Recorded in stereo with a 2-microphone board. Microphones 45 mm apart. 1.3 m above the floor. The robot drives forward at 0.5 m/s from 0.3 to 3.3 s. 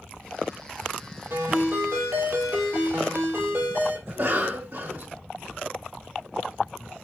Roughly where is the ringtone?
Right.